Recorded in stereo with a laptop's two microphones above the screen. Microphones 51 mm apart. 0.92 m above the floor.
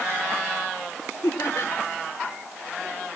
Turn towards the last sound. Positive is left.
turn(degrees=65)  # may be behind; listen again after turning